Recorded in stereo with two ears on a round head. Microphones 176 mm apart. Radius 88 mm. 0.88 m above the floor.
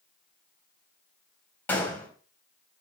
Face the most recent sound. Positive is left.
turn(degrees=10)  # may be behind; listen again after turning